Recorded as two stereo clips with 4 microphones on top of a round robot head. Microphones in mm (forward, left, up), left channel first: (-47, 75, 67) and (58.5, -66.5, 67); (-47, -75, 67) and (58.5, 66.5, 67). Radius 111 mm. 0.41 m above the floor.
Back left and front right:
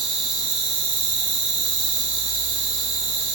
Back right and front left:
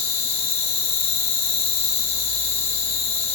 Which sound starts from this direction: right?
An insect, at 0.0 s.